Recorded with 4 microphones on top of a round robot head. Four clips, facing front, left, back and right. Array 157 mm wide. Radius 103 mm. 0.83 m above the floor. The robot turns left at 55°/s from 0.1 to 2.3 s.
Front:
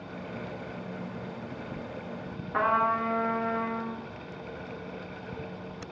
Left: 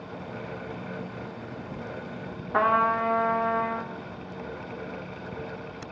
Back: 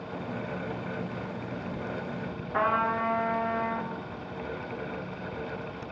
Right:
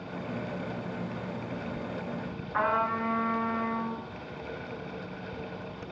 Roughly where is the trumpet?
Left.